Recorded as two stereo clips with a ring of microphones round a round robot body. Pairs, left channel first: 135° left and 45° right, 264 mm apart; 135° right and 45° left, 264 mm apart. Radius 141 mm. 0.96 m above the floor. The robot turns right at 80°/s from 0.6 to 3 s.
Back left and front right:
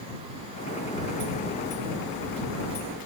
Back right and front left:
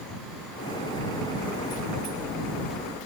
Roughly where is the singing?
No singing in this recording.